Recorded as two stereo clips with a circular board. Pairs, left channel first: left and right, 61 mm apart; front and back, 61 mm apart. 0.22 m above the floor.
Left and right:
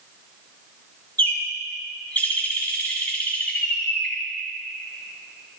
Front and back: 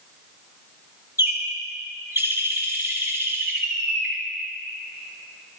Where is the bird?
145° left, 1.2 m.